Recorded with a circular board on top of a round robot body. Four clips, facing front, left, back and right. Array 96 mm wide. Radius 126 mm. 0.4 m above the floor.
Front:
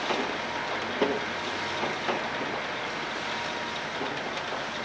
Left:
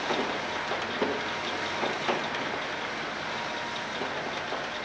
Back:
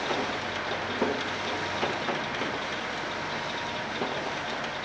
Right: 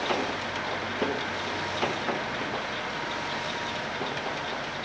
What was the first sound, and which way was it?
Only background noise.